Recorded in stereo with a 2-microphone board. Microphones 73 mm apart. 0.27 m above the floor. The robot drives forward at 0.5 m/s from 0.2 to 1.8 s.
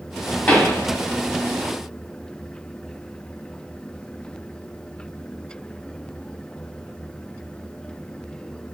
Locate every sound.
0.5 s a pop: 20° left (ahead or behind), 0.6 m